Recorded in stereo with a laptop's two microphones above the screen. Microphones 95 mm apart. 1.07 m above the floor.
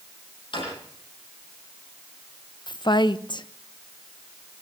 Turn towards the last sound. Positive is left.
turn(degrees=50)  # may be behind; listen again after turning